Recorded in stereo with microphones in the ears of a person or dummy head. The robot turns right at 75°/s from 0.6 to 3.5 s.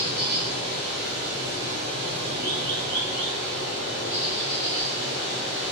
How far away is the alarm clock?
No alarm clock in this recording.